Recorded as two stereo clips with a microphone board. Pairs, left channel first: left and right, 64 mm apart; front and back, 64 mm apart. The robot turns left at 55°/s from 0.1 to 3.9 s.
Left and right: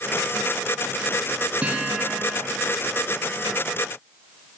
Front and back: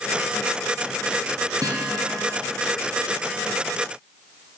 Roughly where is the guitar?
Behind.